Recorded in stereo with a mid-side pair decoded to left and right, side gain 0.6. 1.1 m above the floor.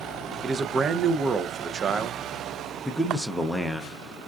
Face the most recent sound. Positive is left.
turn(degrees=5)